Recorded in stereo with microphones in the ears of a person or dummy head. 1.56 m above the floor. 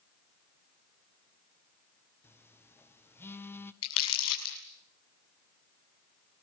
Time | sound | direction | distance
2.2 | a phone buzzing | 15° left (ahead or behind) | 0.9 m
3.8 | crumpling | 80° left | 7.5 m